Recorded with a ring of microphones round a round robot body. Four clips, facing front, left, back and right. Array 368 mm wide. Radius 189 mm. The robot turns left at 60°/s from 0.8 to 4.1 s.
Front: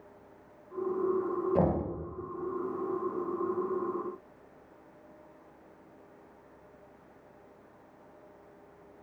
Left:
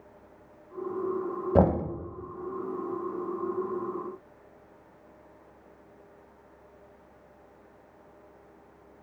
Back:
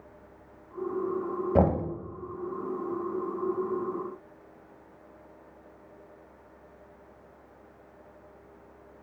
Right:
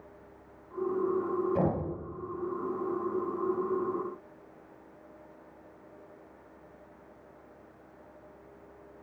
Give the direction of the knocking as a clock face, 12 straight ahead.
8 o'clock.